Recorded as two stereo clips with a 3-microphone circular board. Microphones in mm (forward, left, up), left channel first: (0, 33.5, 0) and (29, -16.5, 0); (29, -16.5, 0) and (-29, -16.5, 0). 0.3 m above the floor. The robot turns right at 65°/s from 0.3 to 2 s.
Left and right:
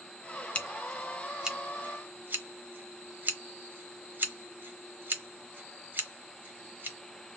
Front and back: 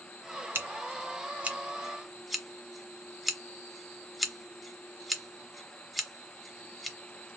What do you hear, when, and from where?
0.6 s scissors: 175° left, 0.7 m; by 7.0 s 90° right, 0.7 m